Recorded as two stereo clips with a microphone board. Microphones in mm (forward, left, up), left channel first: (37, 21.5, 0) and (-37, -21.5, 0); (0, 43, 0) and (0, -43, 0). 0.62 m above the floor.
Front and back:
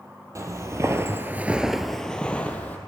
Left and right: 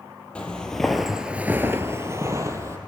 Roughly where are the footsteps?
Behind.